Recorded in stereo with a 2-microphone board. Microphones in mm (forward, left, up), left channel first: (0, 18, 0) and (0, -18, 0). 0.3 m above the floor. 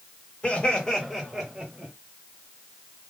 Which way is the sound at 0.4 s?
30° left (ahead or behind).